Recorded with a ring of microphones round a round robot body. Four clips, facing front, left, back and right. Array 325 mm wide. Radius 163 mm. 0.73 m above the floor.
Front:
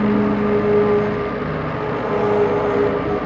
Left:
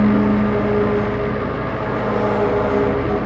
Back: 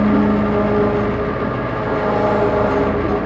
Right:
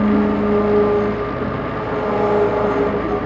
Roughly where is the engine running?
Behind.